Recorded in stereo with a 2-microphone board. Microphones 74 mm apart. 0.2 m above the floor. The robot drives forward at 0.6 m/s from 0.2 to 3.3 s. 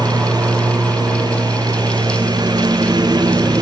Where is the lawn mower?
75° right (ahead or behind); by 3.6 s 85° right.